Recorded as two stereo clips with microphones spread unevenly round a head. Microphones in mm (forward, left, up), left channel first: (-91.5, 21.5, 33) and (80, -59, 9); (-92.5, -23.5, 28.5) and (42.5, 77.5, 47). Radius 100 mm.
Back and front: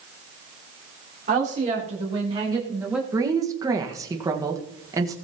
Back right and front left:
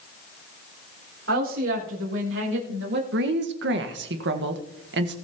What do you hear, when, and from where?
1.3 s a woman speaking: 25° left, 3.5 m; by 3.0 s 60° left, 1.9 m
3.1 s a woman speaking: 50° left, 1.5 m